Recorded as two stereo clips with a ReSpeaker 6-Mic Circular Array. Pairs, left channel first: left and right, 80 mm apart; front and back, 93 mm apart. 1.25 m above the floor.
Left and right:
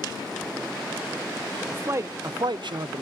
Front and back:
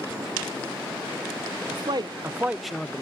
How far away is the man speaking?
About 0.7 m.